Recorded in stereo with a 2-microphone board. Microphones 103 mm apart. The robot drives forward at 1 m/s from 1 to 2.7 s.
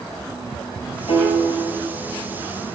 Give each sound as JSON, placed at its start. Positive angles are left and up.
{"t": 1.1, "sound": "a piano", "side_deg": 65, "distance_m": 2.0}